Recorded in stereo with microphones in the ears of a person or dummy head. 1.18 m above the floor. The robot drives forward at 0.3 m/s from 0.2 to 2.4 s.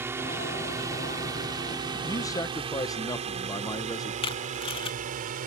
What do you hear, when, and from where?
0.0 s a drone: 10° right (ahead or behind); by 5.5 s 45° right (ahead or behind)
2.0 s a man speaking: 15° left (ahead or behind)
4.2 s tape being pulled: 25° left (ahead or behind)